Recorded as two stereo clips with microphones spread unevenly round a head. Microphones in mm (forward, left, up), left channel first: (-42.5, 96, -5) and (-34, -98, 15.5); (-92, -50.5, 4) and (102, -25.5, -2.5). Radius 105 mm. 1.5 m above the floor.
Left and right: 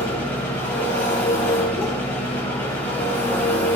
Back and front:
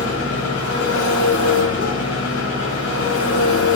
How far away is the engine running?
About 6.5 m.